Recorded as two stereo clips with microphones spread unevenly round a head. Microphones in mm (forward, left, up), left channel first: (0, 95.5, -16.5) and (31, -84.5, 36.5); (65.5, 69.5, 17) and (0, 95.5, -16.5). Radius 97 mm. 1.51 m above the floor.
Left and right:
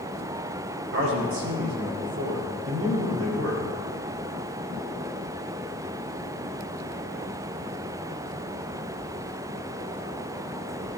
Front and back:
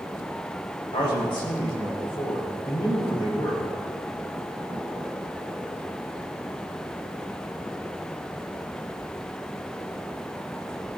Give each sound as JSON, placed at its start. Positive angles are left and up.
{"t": 0.9, "sound": "a man speaking", "azimuth_deg": -70, "distance_m": 5.0}